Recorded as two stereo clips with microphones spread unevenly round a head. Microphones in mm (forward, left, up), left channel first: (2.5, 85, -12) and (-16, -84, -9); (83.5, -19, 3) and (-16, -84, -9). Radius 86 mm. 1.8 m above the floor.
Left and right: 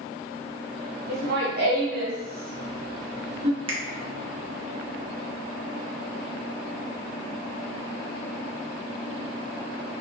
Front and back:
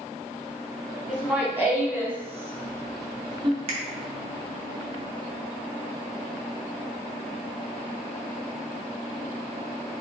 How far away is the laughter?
About 2.0 m.